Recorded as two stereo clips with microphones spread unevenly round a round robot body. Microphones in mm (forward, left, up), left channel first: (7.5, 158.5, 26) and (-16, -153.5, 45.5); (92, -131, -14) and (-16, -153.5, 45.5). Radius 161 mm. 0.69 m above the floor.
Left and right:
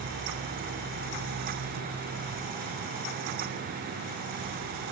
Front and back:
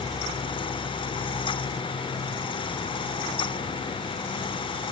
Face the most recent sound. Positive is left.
No sound to turn to.